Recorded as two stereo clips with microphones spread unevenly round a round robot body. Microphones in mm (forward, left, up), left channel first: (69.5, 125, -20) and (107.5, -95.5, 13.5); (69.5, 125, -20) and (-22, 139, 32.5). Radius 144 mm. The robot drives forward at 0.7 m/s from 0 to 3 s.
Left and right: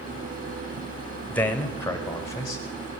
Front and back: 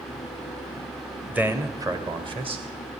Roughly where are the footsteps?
I don't hear footsteps.